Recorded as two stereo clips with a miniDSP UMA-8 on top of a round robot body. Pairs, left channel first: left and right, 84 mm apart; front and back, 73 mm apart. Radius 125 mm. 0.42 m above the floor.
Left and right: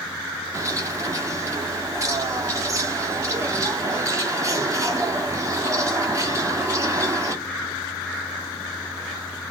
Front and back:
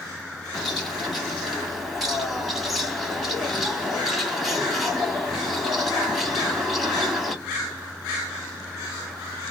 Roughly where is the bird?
Right.